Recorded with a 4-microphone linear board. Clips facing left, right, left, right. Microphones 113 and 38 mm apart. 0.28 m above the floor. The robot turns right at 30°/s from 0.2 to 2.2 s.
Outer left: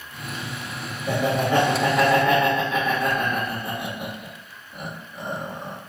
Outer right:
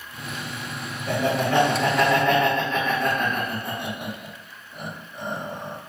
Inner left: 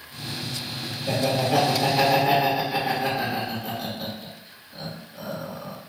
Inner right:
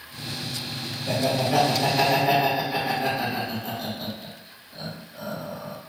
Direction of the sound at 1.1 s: 15° left (ahead or behind).